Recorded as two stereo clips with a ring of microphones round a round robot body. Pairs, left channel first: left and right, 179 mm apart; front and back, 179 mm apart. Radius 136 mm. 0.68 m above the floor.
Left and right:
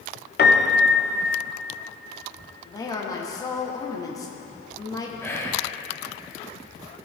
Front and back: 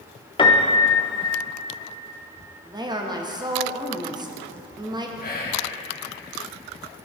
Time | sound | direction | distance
0.4 | a piano | 65° left | 1.0 m
2.6 | a woman speaking | 140° left | 0.9 m
5.2 | whispering | 15° left | 1.6 m